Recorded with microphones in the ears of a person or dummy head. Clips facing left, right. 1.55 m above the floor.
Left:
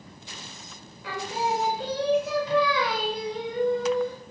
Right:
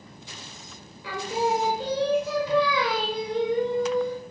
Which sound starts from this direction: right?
Singing, at 1.0 s.